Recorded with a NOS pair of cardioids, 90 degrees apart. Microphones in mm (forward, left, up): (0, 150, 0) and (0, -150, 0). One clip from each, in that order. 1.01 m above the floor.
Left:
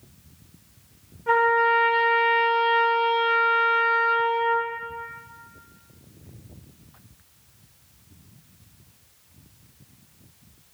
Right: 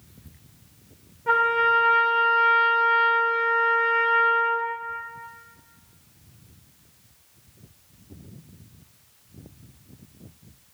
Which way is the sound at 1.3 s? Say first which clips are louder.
Left 1 dB; 15° right.